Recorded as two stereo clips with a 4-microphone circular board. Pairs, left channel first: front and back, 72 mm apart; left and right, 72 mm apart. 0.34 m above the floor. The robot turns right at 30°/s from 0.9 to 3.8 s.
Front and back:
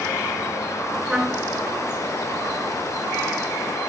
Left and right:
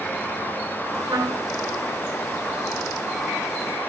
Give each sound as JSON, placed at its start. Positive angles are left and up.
{"t": 1.1, "sound": "a trumpet", "azimuth_deg": -100, "distance_m": 3.5}